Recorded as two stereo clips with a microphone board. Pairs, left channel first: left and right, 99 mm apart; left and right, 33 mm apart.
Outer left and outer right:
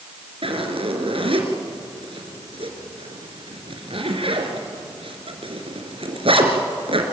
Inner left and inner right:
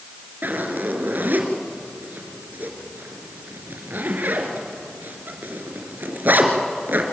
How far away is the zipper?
About 2.5 m.